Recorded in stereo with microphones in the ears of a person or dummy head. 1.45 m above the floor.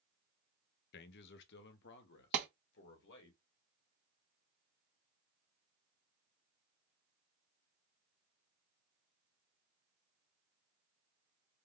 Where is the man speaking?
60° left (ahead or behind), 0.5 m; by 3.3 s 65° left (ahead or behind), 1.9 m.